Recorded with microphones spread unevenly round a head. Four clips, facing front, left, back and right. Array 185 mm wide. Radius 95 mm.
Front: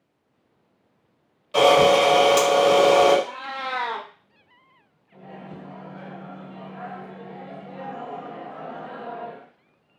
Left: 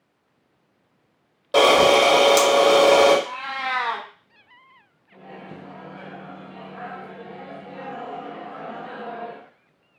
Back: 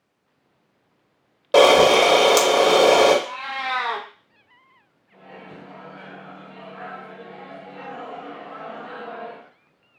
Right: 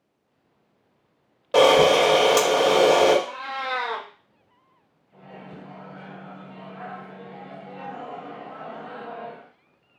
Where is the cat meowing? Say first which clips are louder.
Left 1 dB, back 3 dB; 80° left, 1.1 m.